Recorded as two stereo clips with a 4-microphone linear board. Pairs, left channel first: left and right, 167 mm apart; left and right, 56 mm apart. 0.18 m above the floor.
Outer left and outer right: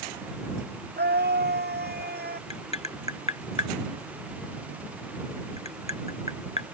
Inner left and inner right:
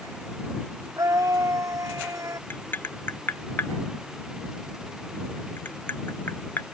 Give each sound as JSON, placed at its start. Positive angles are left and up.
{"t": 1.0, "sound": "a scream", "side_deg": -80}
{"t": 2.5, "sound": "tapping", "side_deg": 40}